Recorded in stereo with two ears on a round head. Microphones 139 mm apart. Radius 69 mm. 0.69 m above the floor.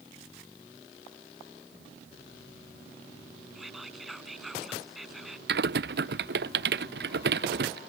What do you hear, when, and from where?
3.5 s whispering: centre (ahead or behind)
5.5 s typing on a keyboard: 75° right (ahead or behind)